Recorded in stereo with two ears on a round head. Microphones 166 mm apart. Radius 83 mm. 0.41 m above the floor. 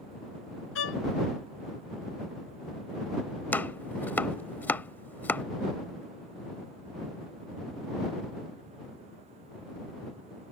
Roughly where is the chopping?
Centre.